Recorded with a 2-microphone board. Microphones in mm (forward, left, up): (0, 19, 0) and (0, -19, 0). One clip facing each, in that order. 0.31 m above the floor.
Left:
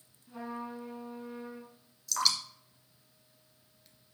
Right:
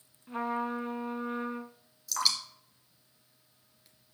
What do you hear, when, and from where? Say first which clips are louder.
0.3 s a trumpet: right 8 dB; 65° right (ahead or behind), 0.7 m
2.1 s dripping: even; 5° right (ahead or behind), 1.4 m